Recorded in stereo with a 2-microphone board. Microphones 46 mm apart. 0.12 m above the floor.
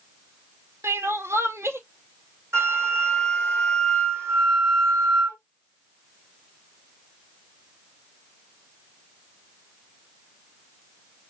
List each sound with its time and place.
0.8 s crying: 75° right (ahead or behind), 0.6 m
2.5 s a flute: 80° right, 3 m